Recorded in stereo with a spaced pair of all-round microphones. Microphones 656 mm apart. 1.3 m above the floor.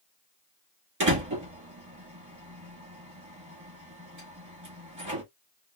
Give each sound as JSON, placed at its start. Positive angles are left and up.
{"t": 1.0, "sound": "a door slam", "side_deg": -25, "distance_m": 2.0}